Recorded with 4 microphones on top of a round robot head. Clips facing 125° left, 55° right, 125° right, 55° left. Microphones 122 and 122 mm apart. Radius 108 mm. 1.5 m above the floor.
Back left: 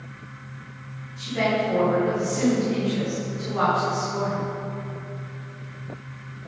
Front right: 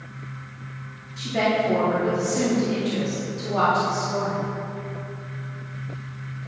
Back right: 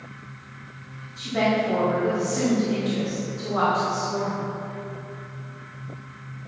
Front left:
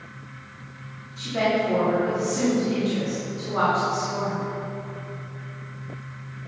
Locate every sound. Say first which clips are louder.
1.2 s a woman speaking: front right 1 dB, even; 35° right, 4 m